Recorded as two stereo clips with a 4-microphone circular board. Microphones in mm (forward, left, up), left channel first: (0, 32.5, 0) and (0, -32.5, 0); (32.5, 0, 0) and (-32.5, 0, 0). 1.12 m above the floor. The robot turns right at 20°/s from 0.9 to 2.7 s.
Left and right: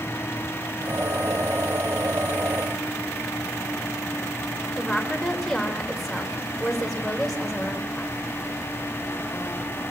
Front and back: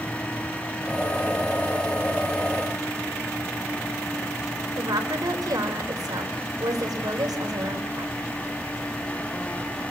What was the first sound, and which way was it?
A woman speaking, 175° left.